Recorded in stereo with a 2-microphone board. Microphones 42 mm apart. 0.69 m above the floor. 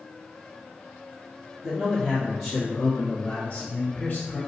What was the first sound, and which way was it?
A man speaking, 5° right (ahead or behind).